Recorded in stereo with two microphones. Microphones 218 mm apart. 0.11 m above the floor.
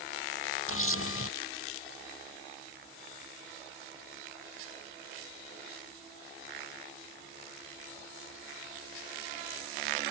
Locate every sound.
0.7 s a camera shutter: 70° left (ahead or behind)